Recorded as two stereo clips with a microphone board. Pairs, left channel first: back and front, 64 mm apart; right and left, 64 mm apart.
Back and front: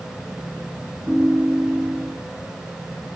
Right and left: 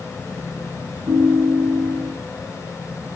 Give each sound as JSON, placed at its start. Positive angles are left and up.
{"t": 1.1, "sound": "a ringtone", "azimuth_deg": 70, "distance_m": 8.0}